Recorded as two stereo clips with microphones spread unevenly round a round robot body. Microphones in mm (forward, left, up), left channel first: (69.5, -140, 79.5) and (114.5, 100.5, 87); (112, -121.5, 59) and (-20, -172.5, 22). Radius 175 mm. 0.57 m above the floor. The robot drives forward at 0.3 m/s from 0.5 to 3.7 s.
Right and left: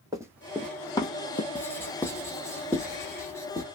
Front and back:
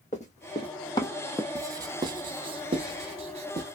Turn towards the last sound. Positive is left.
turn(degrees=180)